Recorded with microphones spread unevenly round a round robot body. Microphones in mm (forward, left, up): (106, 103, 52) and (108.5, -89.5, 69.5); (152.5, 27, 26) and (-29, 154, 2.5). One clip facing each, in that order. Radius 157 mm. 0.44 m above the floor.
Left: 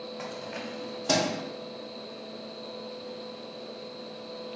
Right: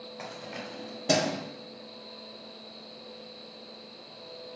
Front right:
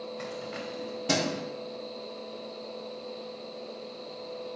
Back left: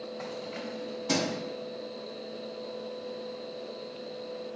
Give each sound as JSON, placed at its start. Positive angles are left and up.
{"t": 0.2, "sound": "keys jangling", "azimuth_deg": 0, "distance_m": 2.0}